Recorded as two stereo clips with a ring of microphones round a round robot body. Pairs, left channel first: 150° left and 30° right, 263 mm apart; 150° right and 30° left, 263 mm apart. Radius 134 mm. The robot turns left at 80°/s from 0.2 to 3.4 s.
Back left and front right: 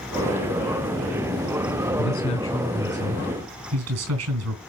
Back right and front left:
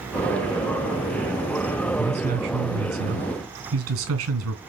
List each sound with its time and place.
2.0 s a man speaking: 110° left, 3.5 m; by 4.6 s 5° right, 3.5 m